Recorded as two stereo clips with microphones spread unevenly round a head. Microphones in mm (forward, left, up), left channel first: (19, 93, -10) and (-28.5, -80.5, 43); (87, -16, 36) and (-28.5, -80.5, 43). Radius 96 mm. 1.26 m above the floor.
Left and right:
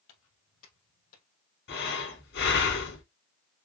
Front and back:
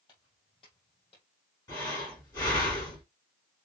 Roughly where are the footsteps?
Left.